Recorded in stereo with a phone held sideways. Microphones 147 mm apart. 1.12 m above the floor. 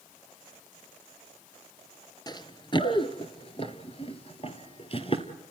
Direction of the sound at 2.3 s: 30° left (ahead or behind).